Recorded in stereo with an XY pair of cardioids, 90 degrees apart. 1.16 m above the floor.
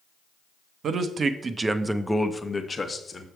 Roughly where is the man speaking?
Ahead right.